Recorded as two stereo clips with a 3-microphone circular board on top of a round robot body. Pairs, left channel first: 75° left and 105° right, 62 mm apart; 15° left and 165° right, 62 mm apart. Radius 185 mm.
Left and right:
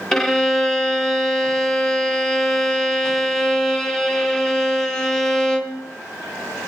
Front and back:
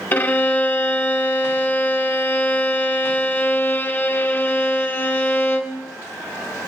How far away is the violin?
About 1.3 m.